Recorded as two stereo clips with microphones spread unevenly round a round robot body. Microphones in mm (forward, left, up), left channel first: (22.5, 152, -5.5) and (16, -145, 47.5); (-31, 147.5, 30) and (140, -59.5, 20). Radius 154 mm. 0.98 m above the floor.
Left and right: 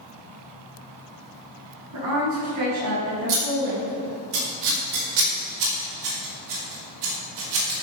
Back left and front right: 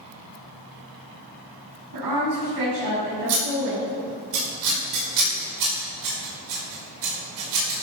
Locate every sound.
1.9 s a woman speaking: 60° right, 6 m
3.3 s scissors: 65° right, 5 m